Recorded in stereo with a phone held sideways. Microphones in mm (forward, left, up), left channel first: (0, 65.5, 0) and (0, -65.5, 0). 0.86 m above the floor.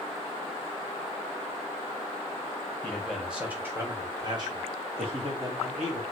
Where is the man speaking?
10° left (ahead or behind), 1.0 m; by 6.0 s 55° right (ahead or behind), 2.0 m.